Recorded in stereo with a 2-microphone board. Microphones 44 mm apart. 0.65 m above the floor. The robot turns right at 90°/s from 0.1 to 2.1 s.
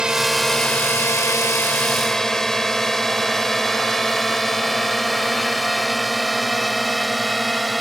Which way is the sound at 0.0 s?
20° right (ahead or behind).